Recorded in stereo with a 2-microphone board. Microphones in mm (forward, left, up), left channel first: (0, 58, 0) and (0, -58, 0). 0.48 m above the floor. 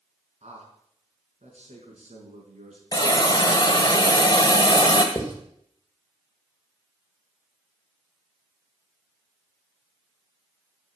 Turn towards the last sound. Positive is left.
turn(degrees=35)  # may be behind; listen again after turning